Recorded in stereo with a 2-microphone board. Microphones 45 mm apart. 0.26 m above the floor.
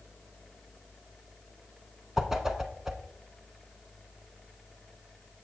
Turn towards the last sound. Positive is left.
turn(degrees=-10)  # may be behind; listen again after turning